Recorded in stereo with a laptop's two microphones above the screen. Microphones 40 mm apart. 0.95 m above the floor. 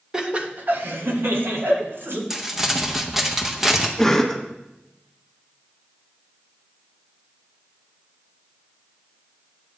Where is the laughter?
15° right (ahead or behind), 1.1 m; by 2.2 s 75° right (ahead or behind), 2.5 m.